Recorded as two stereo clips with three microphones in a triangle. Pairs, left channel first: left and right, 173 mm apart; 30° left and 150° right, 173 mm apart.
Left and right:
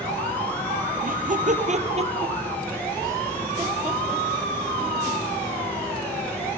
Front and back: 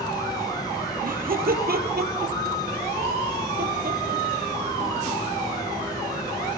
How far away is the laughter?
About 3 m.